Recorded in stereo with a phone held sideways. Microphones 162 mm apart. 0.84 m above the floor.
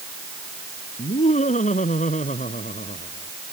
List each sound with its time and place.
1.0 s laughter: 50° left (ahead or behind)